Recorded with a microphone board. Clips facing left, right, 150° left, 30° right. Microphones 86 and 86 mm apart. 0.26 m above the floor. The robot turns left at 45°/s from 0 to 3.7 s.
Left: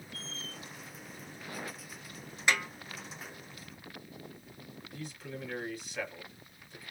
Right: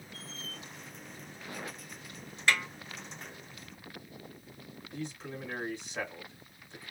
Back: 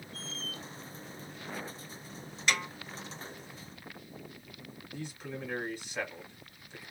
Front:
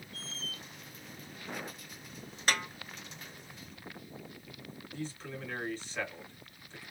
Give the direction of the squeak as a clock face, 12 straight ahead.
5 o'clock.